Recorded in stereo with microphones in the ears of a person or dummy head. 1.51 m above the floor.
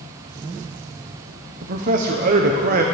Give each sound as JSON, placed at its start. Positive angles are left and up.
{"t": 1.6, "sound": "a man speaking", "side_deg": -50, "distance_m": 0.9}